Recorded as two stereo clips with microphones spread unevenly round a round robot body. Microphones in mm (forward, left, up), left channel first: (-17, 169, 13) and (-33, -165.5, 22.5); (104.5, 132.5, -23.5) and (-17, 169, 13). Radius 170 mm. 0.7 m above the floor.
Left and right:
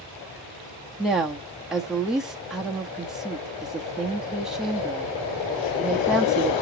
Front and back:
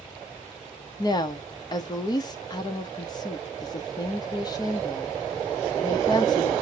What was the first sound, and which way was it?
A woman speaking, 5° right.